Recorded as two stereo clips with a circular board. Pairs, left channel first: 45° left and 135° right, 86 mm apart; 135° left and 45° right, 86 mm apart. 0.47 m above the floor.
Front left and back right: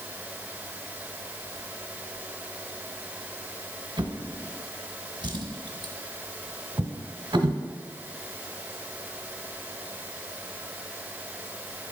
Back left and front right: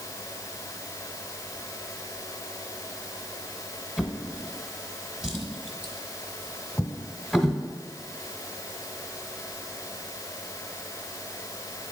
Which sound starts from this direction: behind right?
A drawer, at 4.0 s.